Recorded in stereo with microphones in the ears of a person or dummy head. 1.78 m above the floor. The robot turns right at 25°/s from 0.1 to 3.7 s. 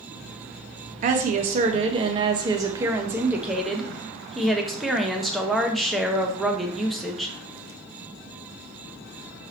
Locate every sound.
1.0 s a woman speaking: 65° right, 0.9 m; by 7.3 s straight ahead, 0.9 m